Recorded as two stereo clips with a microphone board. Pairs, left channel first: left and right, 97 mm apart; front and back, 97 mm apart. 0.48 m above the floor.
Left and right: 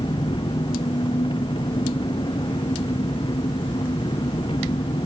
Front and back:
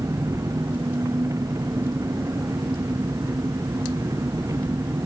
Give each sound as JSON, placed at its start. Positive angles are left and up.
{"t": 0.0, "sound": "an engine running", "azimuth_deg": 125}